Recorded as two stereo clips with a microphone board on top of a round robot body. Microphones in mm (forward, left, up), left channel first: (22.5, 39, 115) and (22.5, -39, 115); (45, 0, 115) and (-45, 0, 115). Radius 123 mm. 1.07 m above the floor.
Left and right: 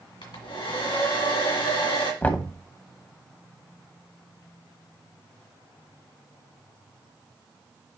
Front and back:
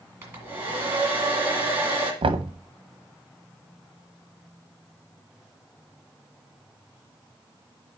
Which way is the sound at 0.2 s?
110° left.